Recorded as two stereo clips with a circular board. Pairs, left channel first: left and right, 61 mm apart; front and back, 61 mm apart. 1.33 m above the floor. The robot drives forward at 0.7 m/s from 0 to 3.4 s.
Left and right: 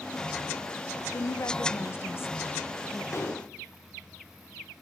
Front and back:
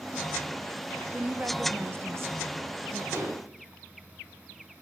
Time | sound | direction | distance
1.1 | a woman speaking | 110° left | 1.0 m
3.1 | dishes clattering | 135° left | 3 m